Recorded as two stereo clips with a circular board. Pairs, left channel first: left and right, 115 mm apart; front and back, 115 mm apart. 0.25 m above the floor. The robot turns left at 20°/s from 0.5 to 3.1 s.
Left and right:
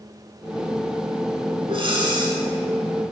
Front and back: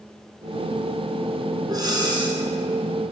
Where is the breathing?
125° right, 1.2 m; by 2.4 s 140° right, 1.2 m.